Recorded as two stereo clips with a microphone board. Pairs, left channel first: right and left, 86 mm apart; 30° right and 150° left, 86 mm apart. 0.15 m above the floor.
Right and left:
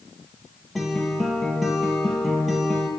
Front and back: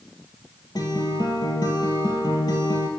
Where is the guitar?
Straight ahead, 3 m.